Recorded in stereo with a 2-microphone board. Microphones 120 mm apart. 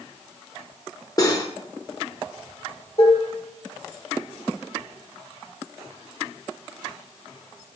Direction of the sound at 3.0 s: 50° left (ahead or behind).